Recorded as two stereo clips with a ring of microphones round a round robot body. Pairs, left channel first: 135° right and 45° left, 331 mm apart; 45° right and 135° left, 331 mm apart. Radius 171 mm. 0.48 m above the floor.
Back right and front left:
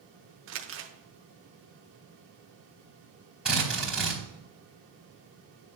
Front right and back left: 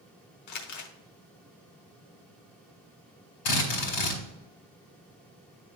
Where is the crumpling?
10° right, 0.9 m.